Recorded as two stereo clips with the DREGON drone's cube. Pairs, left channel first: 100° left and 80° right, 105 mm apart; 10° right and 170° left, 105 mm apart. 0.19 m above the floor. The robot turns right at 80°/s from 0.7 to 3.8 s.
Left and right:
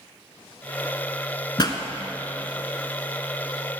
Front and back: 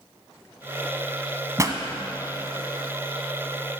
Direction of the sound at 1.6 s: 120° left.